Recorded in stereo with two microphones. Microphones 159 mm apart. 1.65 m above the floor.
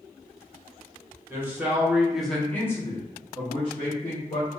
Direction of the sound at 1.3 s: 15° right (ahead or behind).